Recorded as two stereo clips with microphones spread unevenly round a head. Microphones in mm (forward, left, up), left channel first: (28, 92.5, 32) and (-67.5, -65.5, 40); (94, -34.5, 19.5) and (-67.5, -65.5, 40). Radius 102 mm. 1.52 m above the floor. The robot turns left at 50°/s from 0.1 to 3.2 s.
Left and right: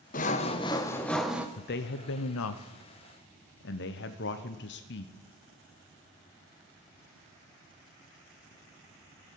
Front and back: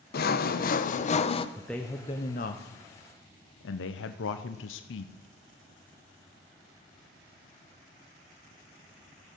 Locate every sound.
0.1 s sawing: 20° left, 0.6 m; by 1.5 s 45° right, 0.6 m
1.6 s a man speaking: 105° left, 0.7 m; by 5.1 s 20° left, 0.7 m